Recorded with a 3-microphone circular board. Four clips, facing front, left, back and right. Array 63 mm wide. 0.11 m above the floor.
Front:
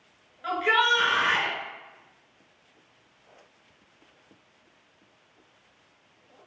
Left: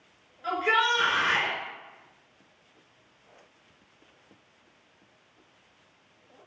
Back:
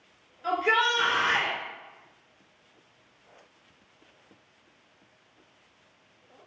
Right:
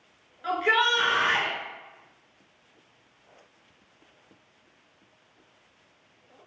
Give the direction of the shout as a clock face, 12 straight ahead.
1 o'clock.